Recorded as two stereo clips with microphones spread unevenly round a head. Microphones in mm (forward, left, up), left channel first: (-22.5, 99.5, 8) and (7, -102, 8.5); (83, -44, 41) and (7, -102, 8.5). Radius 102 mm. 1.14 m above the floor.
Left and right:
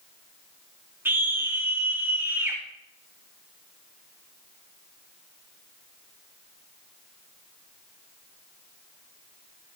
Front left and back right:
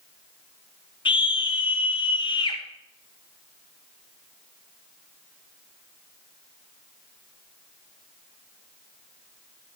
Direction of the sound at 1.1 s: 5° right.